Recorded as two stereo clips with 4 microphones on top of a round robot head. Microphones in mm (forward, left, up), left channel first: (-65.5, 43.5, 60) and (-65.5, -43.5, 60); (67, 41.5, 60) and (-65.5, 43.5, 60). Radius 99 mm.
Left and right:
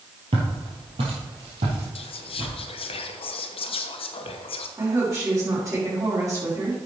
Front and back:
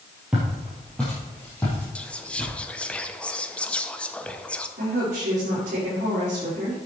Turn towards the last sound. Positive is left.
turn(degrees=-145)